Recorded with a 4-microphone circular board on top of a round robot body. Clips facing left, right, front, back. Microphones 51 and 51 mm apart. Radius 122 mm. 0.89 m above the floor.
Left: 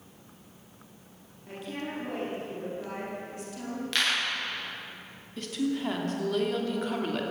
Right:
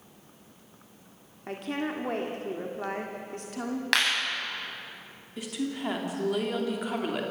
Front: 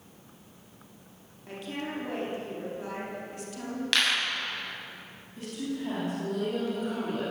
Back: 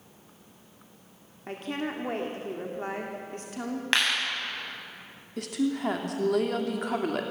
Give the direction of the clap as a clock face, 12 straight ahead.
4 o'clock.